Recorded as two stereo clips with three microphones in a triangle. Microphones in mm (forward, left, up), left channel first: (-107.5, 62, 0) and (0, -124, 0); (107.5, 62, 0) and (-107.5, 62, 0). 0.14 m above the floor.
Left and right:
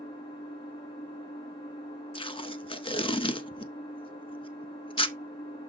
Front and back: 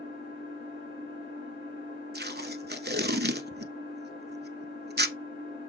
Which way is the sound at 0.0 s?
50° left.